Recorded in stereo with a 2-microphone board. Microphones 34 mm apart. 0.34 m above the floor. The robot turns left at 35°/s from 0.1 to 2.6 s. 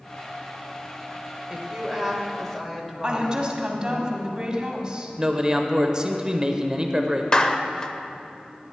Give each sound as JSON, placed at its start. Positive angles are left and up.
{"t": 1.5, "sound": "a woman speaking", "side_deg": -10, "distance_m": 1.3}
{"t": 3.0, "sound": "a woman speaking", "side_deg": -25, "distance_m": 1.9}
{"t": 5.2, "sound": "a man speaking", "side_deg": -25, "distance_m": 1.0}
{"t": 7.3, "sound": "a clap", "side_deg": 25, "distance_m": 0.7}